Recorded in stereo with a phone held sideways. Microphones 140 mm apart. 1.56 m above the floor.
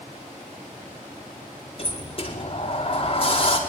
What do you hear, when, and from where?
1.8 s a sliding door: 40° left (ahead or behind), 5 m